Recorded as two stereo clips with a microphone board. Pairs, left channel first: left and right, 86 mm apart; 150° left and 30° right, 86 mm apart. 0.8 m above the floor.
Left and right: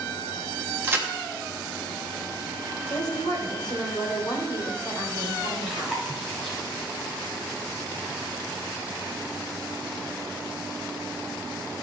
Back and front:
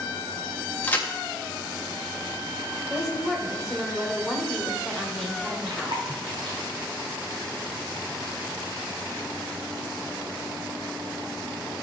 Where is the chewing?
Straight ahead, 2 m.